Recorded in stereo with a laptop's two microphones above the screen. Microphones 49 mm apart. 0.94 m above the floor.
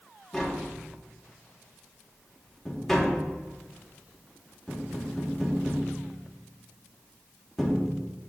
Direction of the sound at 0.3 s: 5° left (ahead or behind).